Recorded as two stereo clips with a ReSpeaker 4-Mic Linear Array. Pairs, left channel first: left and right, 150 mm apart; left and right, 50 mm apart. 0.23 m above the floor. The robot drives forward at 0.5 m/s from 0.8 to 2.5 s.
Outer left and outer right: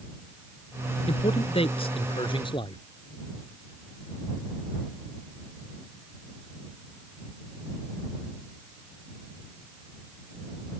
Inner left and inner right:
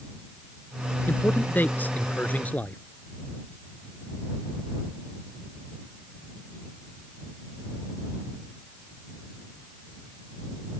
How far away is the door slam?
No door slam in this recording.